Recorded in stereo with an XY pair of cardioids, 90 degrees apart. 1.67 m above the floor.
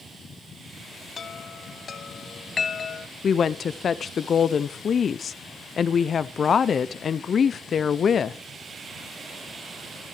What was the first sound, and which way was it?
A chime, 45° left.